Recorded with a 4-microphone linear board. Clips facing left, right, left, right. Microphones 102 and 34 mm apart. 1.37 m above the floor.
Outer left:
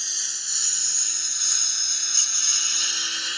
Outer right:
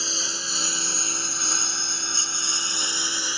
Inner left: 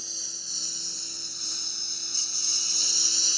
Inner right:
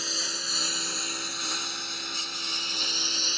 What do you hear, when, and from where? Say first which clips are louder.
0.0 s a lawn mower: outer right 11 dB, inner right 10 dB; 75° right (ahead or behind); by 3.4 s 30° right (ahead or behind)